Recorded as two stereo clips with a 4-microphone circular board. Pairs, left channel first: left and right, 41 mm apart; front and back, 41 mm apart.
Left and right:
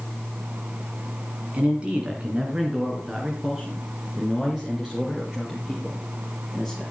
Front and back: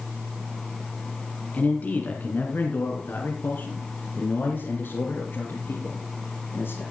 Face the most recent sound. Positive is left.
turn(degrees=-5)